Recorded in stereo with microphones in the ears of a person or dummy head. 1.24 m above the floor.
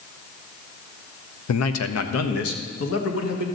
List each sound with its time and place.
1.5 s a man speaking: 80° left, 0.7 m; by 3.5 s 70° left (ahead or behind), 2.0 m